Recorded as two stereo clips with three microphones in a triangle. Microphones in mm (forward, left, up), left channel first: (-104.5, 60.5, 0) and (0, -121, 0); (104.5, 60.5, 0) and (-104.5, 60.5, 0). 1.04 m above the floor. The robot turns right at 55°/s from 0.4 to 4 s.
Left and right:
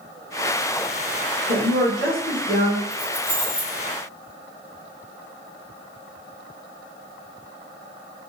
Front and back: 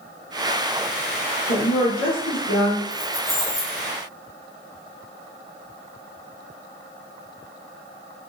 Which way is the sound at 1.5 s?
40° right.